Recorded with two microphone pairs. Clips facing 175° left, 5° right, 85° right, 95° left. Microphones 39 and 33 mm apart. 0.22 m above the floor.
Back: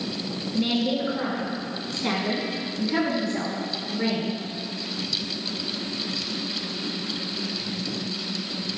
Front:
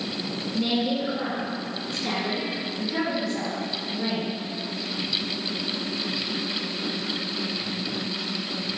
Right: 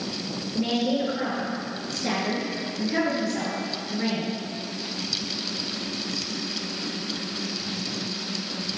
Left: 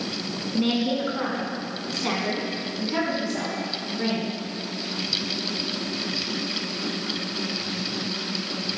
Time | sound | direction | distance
0.5 | a woman speaking | 95° left | 1.9 m